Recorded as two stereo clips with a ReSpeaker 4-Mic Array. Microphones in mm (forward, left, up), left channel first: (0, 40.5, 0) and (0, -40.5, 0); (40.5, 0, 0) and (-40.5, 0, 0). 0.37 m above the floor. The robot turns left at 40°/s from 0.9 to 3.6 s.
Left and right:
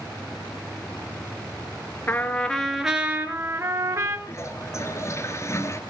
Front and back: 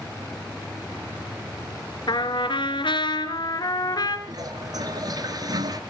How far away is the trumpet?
About 1.5 m.